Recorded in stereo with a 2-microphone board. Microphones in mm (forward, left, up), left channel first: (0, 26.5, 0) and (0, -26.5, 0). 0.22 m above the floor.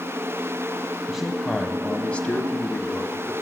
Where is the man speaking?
5° right (ahead or behind), 1.4 m; by 3.3 s 30° left (ahead or behind), 1.9 m.